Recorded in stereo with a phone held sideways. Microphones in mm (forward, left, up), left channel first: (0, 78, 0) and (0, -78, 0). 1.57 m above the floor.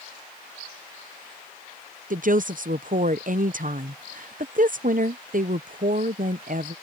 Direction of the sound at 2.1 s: 60° right (ahead or behind).